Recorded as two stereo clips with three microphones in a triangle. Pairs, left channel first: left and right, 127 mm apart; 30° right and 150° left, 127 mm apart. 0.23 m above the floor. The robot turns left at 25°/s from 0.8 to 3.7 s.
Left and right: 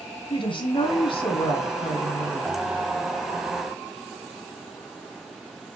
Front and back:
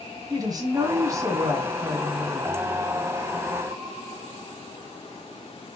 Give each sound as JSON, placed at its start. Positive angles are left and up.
{"t": 0.3, "sound": "a woman speaking", "azimuth_deg": 105, "distance_m": 1.7}